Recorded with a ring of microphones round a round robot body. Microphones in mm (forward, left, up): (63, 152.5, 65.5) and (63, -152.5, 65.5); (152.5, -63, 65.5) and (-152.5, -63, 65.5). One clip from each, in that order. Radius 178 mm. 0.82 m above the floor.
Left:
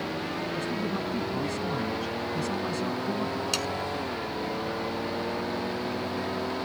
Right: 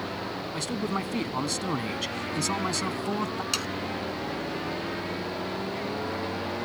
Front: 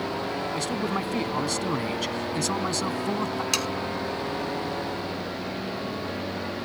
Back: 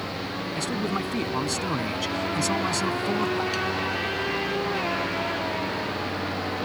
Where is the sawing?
5° right.